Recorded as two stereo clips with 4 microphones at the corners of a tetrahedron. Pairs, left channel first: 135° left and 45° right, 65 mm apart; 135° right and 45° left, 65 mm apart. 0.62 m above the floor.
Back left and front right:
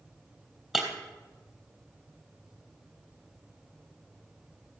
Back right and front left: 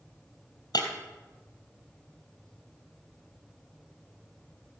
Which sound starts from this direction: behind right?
Breaking glass, at 0.7 s.